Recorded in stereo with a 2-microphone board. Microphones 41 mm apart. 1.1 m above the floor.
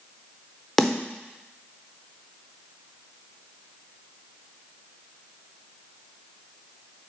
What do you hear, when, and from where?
0.8 s a snare drum: 5° left (ahead or behind), 0.7 m